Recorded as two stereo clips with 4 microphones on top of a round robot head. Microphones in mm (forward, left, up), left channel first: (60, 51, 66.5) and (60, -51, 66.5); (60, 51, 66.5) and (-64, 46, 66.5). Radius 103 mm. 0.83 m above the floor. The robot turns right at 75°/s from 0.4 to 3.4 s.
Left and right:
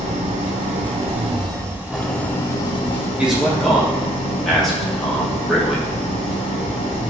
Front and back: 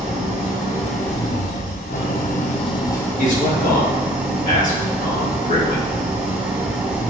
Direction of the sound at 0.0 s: 120° right.